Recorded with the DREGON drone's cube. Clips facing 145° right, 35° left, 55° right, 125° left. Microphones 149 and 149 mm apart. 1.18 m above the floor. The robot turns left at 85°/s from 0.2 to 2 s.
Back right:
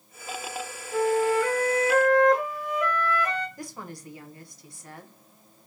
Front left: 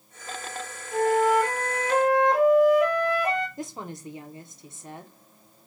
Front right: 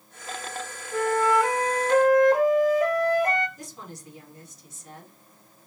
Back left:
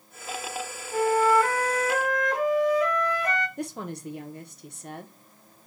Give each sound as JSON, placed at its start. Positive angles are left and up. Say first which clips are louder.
{"t": 0.9, "sound": "a flute", "louder": "front left 2 dB, back left 1 dB", "azimuth_deg": 75, "distance_m": 1.6}
{"t": 3.6, "sound": "a woman speaking", "louder": "front left 3 dB, back left 9 dB", "azimuth_deg": 100, "distance_m": 1.0}